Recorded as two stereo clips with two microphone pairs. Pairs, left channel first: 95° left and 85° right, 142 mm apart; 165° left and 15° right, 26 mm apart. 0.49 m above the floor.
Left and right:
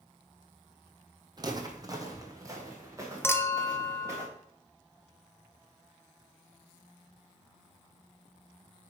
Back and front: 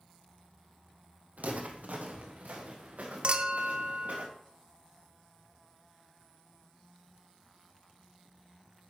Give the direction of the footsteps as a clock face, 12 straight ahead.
1 o'clock.